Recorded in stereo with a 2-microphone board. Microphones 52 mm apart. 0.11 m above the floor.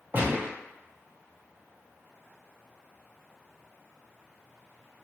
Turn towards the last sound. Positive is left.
turn(degrees=-40)  # may be behind; listen again after turning